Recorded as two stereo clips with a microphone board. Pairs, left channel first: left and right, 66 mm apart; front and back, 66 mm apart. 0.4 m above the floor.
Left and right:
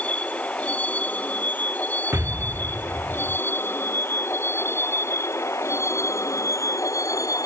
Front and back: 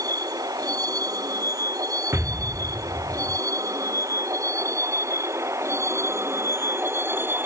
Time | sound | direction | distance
0.0 | a vehicle | 160° left | ?
2.1 | an explosion | 135° right | ?